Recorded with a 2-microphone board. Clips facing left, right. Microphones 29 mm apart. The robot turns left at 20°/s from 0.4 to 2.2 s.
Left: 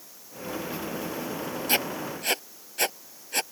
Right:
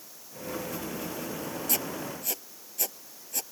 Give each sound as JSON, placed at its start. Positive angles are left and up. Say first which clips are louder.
{"t": 1.7, "sound": "writing", "louder": "left 6 dB", "side_deg": 45}